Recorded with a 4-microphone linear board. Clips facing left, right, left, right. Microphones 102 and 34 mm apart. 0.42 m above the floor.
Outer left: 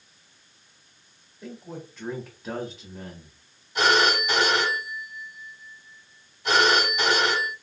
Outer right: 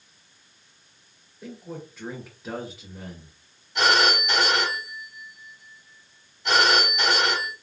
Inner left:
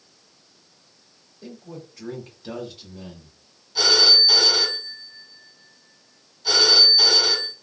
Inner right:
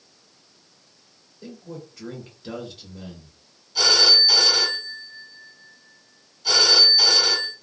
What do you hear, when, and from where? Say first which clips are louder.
1.4 s a man speaking: outer right 1 dB, inner right 1 dB; 5° right (ahead or behind), 1.7 m
3.8 s a phone ringing: outer left 1 dB, even; 5° left (ahead or behind), 2.5 m